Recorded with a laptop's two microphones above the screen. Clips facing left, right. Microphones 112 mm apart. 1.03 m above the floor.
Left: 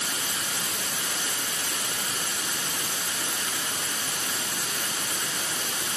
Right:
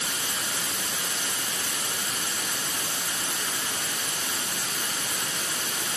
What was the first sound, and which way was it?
Only background noise.